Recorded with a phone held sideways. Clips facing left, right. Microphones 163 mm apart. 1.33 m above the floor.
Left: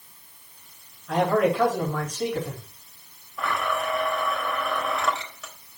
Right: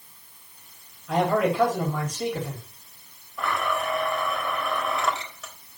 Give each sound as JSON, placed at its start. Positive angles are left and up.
{"t": 1.1, "sound": "a man speaking", "side_deg": -5, "distance_m": 3.5}
{"t": 3.4, "sound": "a blender", "side_deg": 0, "distance_m": 3.5}